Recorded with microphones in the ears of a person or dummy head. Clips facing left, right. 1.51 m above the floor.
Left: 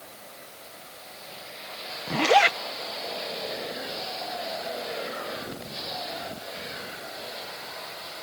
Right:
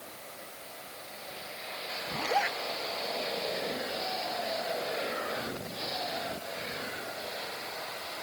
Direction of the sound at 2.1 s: 80° left.